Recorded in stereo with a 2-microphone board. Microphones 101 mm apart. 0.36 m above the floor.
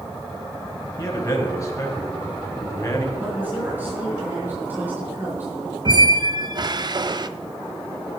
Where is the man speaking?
30° left (ahead or behind), 3 m.